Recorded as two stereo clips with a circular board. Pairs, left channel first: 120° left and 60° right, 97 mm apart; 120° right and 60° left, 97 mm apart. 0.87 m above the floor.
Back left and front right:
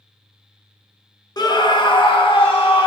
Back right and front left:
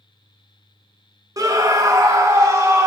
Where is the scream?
95° left, 0.9 m; by 2.9 s 115° left, 1.6 m.